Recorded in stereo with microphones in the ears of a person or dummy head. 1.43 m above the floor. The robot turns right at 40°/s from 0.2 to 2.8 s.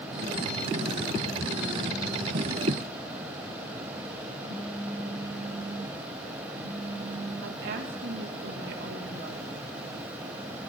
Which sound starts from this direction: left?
A phone buzzing, at 4.4 s.